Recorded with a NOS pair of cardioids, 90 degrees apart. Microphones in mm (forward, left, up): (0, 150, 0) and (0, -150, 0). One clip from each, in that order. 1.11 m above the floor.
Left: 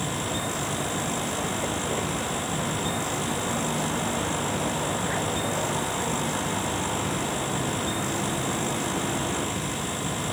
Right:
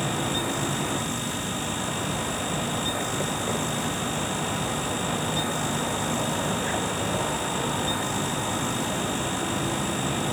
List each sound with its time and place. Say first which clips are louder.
0.0 s a fan: right 2 dB; 20° left, 1.9 m